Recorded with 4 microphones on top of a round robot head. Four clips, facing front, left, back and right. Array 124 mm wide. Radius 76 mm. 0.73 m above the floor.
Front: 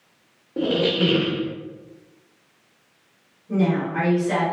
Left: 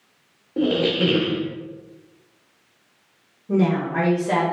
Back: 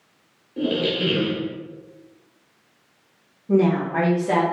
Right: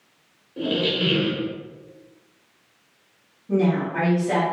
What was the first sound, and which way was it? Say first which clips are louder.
A squeak: left 4 dB, front 2 dB; 45° left.